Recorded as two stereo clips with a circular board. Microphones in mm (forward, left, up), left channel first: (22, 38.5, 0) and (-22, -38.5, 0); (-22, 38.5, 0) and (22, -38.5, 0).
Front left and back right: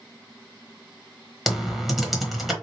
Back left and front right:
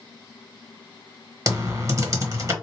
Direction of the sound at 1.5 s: 30° right.